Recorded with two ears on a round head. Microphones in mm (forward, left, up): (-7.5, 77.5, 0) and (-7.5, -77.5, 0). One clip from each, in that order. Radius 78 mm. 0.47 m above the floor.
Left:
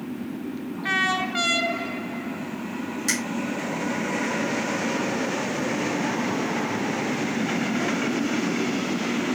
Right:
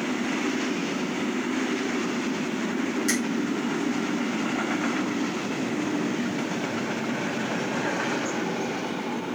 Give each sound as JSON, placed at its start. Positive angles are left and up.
{"t": 3.1, "sound": "a finger snap", "side_deg": 15, "distance_m": 3.5}